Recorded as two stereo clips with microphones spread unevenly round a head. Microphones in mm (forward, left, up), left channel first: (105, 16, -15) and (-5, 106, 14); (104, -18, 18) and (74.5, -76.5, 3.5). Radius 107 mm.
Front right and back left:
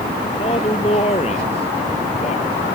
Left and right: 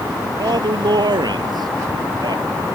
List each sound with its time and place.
0.4 s a man speaking: 105° right